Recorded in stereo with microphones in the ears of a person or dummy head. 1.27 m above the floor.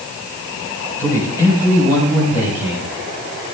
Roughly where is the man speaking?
Centre.